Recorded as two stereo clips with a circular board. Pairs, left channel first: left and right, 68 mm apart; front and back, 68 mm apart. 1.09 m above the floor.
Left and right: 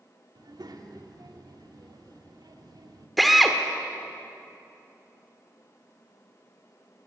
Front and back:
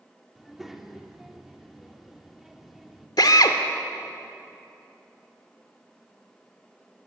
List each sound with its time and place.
0.3 s a child speaking: 95° right, 2.5 m
3.2 s a drill: straight ahead, 1.6 m